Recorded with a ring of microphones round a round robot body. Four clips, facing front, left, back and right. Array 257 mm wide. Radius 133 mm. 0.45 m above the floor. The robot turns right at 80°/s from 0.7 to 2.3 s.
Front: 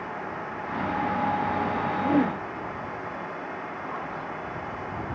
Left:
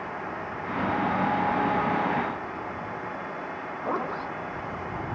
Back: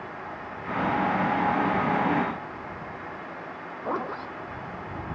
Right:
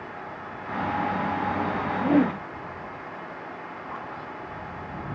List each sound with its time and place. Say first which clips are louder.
2.0 s a whoosh: right 5 dB, front 2 dB; 85° right; by 2.4 s 55° right
3.8 s a zipper: left 10 dB, back 8 dB; 135° left